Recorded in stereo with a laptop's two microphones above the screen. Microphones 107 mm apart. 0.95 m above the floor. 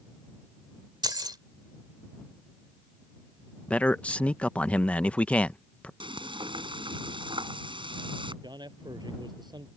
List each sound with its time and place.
1.0 s keys jangling: 40° right (ahead or behind)
3.7 s a man speaking: 10° left (ahead or behind)
6.0 s frying: 50° right (ahead or behind)
8.4 s a man speaking: 40° right (ahead or behind)